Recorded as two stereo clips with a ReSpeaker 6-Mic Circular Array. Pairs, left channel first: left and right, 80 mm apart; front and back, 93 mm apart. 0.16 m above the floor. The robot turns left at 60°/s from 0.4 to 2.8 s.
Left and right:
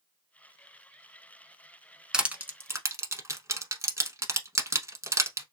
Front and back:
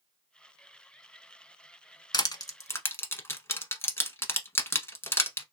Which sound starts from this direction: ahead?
Crushing, at 2.1 s.